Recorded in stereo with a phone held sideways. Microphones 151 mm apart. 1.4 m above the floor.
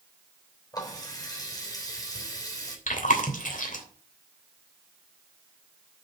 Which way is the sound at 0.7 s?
25° left (ahead or behind).